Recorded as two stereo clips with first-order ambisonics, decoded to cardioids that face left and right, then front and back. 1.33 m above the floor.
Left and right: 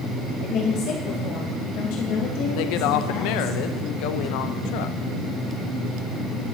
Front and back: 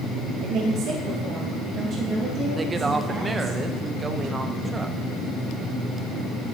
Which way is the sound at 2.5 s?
105° left.